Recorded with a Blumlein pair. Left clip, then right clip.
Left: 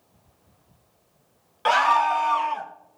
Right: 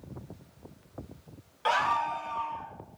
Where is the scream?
15° left, 0.5 m; by 2.7 s 40° left, 1.2 m.